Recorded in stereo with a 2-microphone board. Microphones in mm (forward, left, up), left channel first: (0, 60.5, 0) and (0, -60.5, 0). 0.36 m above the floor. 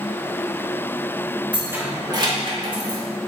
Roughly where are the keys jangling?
Centre.